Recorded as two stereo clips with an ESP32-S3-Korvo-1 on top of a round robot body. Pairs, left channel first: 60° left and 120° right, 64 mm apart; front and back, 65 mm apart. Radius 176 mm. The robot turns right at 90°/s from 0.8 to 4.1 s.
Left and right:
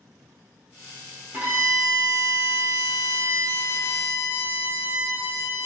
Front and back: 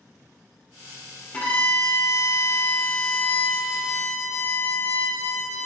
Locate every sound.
1.3 s a violin: 65° right, 1.2 m; by 5.7 s straight behind, 1.2 m